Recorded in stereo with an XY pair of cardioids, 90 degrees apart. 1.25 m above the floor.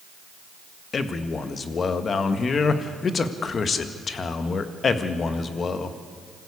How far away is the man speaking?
About 1.7 m.